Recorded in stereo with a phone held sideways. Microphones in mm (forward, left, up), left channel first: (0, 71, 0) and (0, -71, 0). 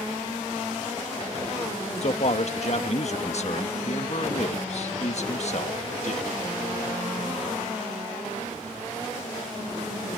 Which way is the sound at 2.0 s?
50° left (ahead or behind).